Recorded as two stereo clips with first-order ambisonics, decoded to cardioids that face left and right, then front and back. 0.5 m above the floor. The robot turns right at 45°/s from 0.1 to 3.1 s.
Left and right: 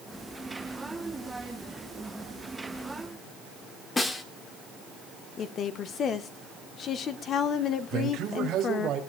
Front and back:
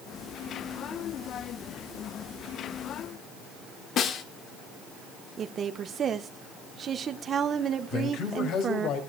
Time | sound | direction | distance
4.0 | a snare drum | 20° left | 1.1 m
5.4 | a woman speaking | 130° left | 0.9 m
7.9 | a man speaking | 35° right | 4 m